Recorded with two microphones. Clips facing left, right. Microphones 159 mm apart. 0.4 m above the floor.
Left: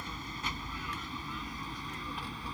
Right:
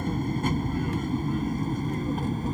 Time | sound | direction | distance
0.0 | an aircraft | 50° right (ahead or behind) | ?